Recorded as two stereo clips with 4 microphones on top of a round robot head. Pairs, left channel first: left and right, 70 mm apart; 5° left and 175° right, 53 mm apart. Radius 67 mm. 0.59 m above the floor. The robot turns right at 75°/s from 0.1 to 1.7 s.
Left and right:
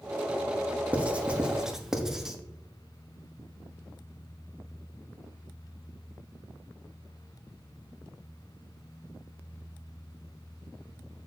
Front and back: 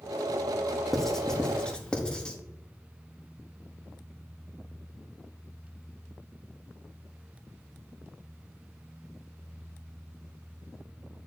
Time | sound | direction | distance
0.9 | writing | 80° right | 1.2 m